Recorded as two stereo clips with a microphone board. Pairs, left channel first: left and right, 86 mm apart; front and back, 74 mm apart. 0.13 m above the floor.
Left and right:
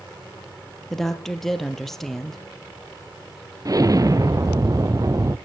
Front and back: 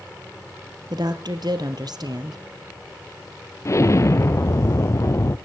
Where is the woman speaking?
175° left, 2.5 m.